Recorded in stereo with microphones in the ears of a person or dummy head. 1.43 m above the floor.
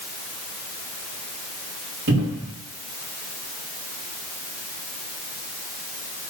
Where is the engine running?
No engine running in this recording.